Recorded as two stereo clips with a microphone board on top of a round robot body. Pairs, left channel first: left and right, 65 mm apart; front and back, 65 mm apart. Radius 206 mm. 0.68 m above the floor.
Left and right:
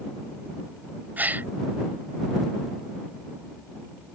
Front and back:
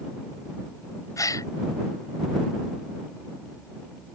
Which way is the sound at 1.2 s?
30° right.